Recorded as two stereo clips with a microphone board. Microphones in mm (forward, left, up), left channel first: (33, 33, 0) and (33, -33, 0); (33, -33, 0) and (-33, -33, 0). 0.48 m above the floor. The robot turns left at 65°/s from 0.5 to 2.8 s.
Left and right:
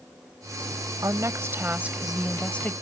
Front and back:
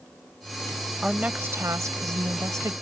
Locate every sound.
1.0 s a woman speaking: 100° right; by 2.7 s 150° left